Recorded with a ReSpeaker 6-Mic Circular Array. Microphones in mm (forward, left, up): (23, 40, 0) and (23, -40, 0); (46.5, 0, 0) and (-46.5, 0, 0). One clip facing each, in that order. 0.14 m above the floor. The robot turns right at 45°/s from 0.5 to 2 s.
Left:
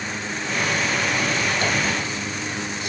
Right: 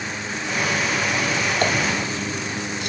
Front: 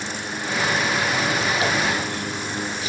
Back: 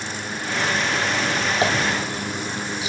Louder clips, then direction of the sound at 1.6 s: Right 2 dB, back 1 dB; 130° right.